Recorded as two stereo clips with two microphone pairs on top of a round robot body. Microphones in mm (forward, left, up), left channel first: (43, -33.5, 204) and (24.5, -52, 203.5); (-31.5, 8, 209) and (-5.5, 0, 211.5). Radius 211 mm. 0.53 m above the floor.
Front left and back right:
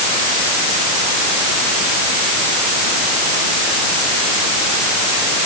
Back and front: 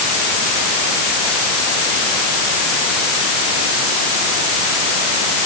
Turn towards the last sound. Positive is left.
No sound to turn to.